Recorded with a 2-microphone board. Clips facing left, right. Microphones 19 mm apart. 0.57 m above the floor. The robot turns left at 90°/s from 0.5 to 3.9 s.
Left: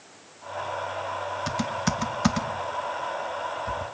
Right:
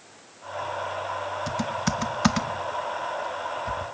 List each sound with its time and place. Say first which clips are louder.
1.5 s typing on a keyboard: left 1 dB; 15° left (ahead or behind), 0.8 m; by 3.9 s centre (ahead or behind), 0.8 m